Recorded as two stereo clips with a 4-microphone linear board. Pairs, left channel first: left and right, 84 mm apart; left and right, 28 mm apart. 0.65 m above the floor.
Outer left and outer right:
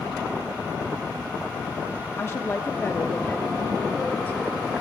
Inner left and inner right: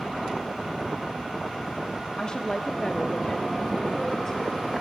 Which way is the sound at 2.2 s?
35° left (ahead or behind).